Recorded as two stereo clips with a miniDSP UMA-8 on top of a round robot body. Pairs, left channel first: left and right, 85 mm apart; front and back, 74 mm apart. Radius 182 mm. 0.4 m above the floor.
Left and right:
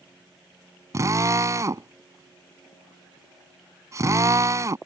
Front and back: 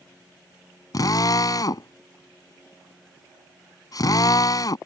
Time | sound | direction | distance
0.9 | a drill | 35° right | ?